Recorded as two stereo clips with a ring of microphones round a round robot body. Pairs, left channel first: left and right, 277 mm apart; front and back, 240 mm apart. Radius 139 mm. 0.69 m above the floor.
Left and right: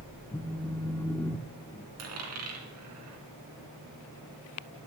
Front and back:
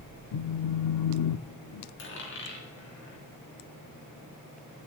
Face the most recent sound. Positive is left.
turn(degrees=-55)